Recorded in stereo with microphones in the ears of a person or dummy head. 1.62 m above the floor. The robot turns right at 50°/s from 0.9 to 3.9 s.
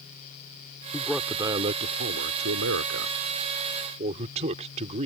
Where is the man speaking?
170° left; by 5.1 s 40° right.